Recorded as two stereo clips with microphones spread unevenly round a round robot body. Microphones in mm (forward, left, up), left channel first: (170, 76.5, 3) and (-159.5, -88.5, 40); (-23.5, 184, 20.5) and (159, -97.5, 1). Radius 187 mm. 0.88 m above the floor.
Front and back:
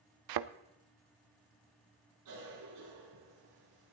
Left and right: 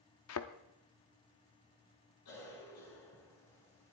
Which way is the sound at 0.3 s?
175° left.